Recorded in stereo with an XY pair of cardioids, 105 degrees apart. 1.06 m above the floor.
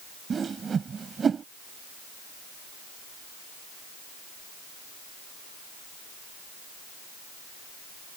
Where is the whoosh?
40° right.